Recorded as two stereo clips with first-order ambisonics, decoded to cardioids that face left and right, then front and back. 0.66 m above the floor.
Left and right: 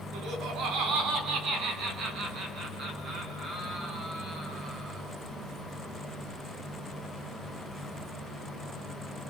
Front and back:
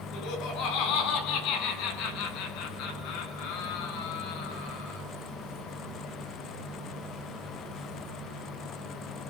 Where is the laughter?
45° right, 6.5 m; by 5.0 s 20° right, 9.5 m.